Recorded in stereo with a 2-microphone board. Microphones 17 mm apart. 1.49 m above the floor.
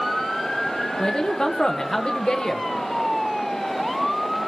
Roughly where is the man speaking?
Left.